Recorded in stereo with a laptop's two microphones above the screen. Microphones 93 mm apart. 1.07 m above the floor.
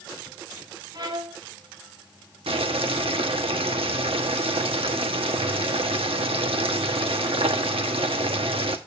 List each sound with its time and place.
0.9 s a violin: 50° right (ahead or behind), 1.8 m
2.5 s boiling: 80° right, 1.1 m